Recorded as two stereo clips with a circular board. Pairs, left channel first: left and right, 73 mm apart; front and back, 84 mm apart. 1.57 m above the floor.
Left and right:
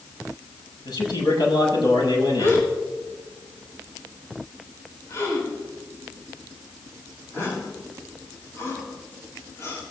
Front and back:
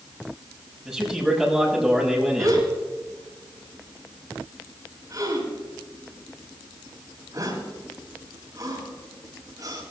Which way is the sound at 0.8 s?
95° left.